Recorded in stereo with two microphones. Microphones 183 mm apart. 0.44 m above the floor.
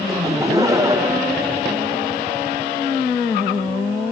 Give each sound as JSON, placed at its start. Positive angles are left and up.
{"t": 0.1, "sound": "laughter", "side_deg": -15, "distance_m": 0.8}